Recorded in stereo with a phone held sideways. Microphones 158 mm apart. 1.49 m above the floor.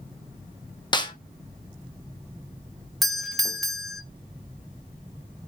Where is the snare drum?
30° left (ahead or behind), 0.7 m.